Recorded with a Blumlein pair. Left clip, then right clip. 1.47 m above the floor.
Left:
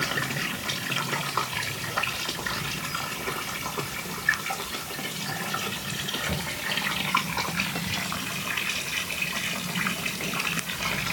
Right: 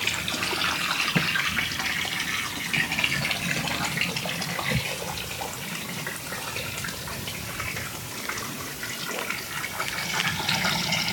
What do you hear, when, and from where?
Only background noise.